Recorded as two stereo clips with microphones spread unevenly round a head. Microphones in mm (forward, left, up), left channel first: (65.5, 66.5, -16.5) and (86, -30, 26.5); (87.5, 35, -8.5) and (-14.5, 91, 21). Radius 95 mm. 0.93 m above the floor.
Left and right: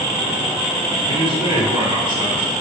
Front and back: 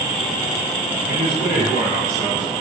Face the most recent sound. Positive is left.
turn(degrees=-35)